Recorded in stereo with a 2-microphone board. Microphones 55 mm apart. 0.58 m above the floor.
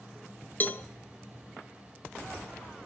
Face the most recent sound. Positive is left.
turn(degrees=40)  # may be behind; listen again after turning